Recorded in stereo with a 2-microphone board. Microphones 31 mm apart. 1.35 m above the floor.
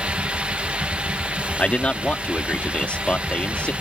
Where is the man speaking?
45° left (ahead or behind).